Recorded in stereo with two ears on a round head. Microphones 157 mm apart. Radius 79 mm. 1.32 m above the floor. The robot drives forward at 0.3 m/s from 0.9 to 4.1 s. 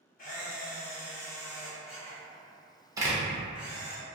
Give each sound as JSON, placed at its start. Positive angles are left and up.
{"t": 0.2, "sound": "a camera shutter", "side_deg": 50, "distance_m": 0.9}
{"t": 3.0, "sound": "a door slam", "side_deg": -20, "distance_m": 0.6}